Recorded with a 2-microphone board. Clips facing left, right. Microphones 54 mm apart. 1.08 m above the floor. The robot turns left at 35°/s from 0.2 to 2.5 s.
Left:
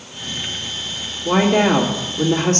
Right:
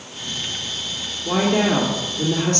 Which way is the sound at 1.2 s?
85° left.